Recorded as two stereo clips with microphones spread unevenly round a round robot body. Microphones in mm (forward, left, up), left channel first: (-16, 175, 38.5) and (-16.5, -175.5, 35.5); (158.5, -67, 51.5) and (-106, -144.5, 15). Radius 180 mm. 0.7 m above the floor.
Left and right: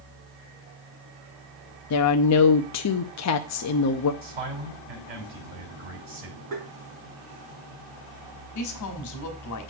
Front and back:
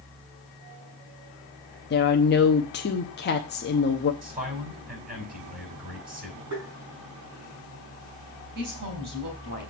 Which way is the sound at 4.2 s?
100° right.